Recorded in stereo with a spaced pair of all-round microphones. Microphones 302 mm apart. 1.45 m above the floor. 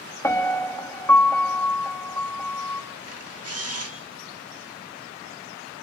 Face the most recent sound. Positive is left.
turn(degrees=-50)  # may be behind; listen again after turning